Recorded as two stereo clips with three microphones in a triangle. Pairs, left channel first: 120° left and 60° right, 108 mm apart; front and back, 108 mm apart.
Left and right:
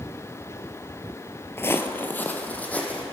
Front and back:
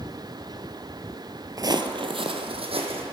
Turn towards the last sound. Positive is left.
turn(degrees=-165)